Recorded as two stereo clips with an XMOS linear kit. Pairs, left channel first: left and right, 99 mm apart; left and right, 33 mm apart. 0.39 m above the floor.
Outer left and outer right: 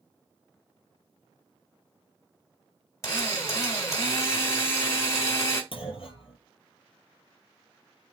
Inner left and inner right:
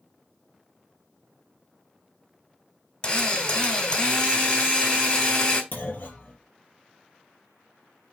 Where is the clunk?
65° left (ahead or behind), 2.5 m.